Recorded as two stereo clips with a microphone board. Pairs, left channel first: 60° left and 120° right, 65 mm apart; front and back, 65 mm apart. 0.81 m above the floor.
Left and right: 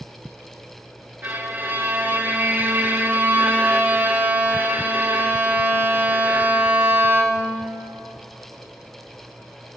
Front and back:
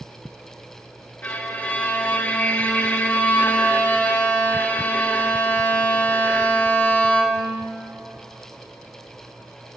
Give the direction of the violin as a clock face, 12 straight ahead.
2 o'clock.